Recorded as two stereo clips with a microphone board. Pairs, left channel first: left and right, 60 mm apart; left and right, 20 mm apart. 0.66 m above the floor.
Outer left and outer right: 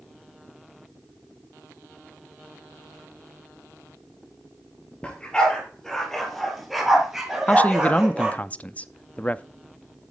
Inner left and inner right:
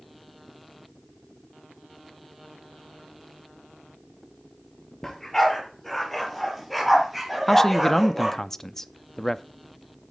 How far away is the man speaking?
About 0.5 m.